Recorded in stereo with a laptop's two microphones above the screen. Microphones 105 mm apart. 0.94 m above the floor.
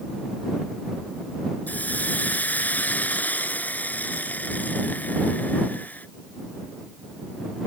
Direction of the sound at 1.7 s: 15° left (ahead or behind).